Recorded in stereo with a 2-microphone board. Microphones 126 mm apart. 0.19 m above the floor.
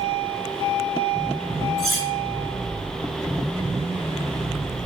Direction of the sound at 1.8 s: 5° left (ahead or behind).